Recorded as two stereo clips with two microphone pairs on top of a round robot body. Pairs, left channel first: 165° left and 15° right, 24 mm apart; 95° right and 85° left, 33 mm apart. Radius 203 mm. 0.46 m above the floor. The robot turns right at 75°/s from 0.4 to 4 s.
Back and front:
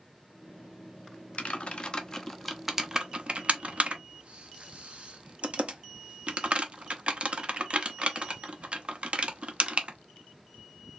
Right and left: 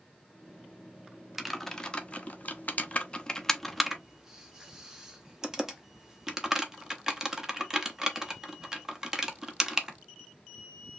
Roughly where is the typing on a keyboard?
Behind.